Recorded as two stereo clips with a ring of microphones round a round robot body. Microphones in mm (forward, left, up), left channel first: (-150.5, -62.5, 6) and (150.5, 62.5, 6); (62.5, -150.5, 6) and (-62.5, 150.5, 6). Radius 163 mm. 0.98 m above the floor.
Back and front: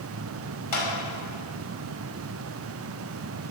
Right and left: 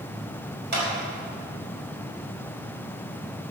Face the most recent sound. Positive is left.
turn(degrees=175)